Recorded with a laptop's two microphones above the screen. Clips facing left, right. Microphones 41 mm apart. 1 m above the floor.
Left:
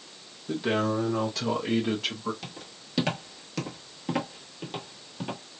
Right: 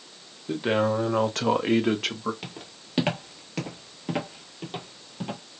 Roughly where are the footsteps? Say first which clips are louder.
Right 2 dB; right.